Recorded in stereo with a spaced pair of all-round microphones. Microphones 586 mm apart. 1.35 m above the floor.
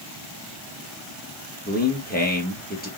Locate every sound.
1.7 s a man speaking: 15° left (ahead or behind), 1.0 m